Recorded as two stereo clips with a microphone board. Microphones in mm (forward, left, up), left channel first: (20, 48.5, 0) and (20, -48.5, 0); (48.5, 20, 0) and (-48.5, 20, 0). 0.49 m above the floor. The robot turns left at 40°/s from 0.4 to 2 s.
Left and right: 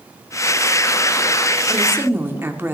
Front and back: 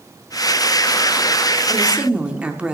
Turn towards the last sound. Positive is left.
turn(degrees=-120)